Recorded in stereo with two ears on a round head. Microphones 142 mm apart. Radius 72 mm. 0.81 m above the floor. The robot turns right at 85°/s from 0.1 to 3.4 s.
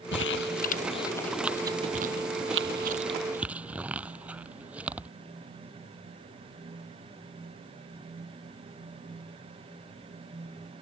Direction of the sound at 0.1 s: 75° left (ahead or behind).